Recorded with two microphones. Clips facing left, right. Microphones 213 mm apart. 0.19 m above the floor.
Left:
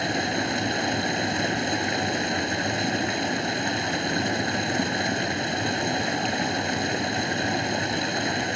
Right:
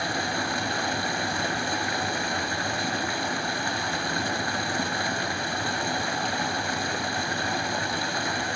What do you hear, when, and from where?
0.0 s running water: 20° left (ahead or behind), 0.8 m